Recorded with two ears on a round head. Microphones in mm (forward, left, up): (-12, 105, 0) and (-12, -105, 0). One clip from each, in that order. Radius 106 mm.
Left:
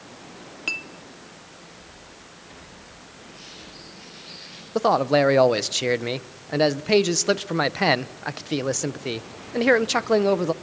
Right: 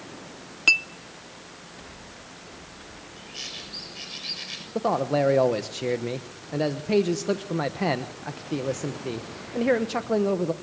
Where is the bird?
80° right, 7 m.